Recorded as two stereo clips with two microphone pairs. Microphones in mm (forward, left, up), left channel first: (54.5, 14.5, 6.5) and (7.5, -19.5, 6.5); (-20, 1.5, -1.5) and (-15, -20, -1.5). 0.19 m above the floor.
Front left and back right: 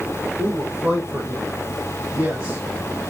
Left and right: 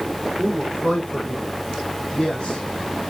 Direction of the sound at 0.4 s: 155° left.